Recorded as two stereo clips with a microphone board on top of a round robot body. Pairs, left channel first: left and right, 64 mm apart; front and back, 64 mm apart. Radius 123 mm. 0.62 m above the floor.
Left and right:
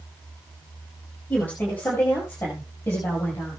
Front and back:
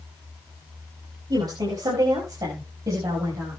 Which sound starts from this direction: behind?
A woman speaking, at 1.3 s.